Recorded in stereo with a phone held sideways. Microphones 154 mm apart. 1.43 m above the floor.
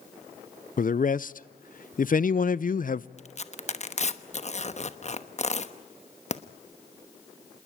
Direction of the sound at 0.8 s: 65° left (ahead or behind).